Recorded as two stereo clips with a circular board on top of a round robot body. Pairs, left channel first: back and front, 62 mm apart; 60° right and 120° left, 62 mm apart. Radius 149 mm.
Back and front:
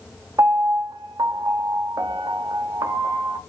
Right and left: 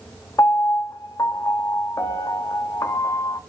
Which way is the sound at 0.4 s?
25° right.